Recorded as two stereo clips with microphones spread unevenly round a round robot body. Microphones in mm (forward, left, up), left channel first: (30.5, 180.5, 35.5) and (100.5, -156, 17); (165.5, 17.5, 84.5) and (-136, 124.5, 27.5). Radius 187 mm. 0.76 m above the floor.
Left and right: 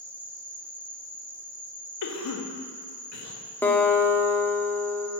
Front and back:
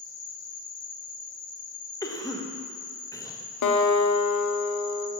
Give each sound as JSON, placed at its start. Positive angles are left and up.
{"t": 0.0, "sound": "an insect", "azimuth_deg": 5, "distance_m": 1.5}
{"t": 2.0, "sound": "a cough", "azimuth_deg": 65, "distance_m": 1.0}
{"t": 3.6, "sound": "a guitar", "azimuth_deg": 15, "distance_m": 0.8}